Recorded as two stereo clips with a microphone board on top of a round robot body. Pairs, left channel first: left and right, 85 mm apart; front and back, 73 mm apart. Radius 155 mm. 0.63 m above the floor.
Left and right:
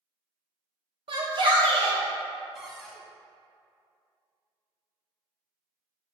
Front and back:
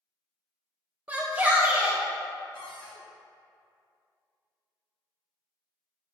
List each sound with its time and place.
1.1 s a shout: 110° right, 1.3 m
2.5 s a cupboard door: straight ahead, 0.7 m